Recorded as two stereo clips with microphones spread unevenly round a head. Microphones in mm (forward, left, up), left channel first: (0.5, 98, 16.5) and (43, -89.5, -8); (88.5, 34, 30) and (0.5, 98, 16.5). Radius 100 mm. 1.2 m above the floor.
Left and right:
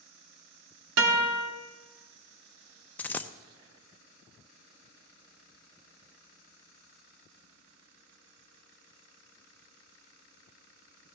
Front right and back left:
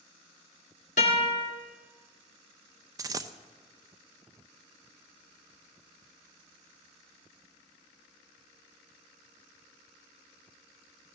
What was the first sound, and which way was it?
A guitar, 85° right.